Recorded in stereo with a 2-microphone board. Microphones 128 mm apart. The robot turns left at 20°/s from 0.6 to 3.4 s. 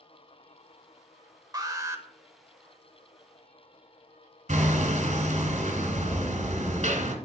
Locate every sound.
1.5 s an alarm: 30° right (ahead or behind), 0.7 m; by 2.0 s 20° right (ahead or behind), 0.7 m
4.5 s hammering: 65° right (ahead or behind), 1.2 m